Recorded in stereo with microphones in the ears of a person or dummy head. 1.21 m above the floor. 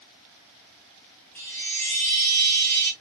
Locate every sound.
1.4 s a chime: 10° left (ahead or behind), 1.0 m